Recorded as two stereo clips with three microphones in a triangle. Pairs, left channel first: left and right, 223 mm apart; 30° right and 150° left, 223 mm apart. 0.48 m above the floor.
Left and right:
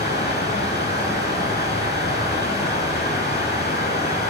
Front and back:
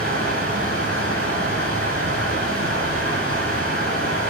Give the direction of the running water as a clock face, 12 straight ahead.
8 o'clock.